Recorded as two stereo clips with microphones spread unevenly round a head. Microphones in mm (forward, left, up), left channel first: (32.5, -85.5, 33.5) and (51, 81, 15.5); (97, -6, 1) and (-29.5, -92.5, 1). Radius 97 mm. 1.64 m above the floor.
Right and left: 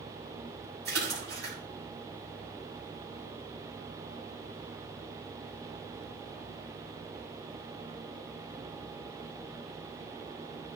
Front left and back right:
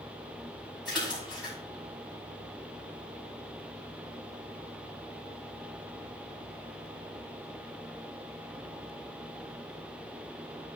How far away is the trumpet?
No trumpet in this recording.